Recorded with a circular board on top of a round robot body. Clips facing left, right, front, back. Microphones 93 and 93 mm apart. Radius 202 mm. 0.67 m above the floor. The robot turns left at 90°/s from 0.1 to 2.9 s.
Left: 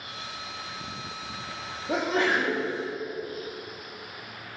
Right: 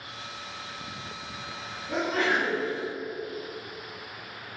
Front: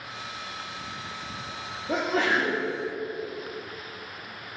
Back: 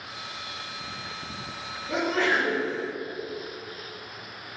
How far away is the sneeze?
About 1.9 m.